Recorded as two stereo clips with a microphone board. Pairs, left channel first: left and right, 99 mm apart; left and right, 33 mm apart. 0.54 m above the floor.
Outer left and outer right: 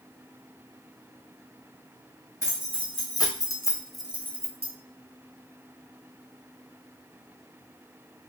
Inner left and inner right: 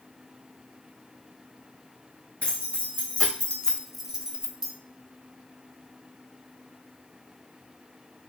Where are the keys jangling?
40° left (ahead or behind), 2 m; by 4.7 s 25° right (ahead or behind), 1.4 m.